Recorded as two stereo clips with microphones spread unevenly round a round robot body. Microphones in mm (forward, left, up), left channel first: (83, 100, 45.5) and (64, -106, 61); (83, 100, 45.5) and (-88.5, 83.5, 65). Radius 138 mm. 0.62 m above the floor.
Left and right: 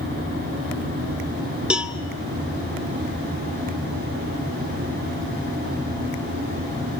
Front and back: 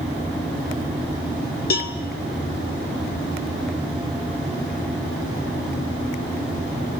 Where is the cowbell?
10° right, 1.6 m.